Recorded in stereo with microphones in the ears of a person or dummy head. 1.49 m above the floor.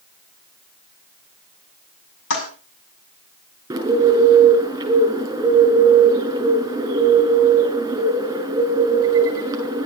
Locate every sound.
2.3 s a toilet flushing: 75° left (ahead or behind), 5.5 m
3.7 s a bird: 20° right (ahead or behind), 6.5 m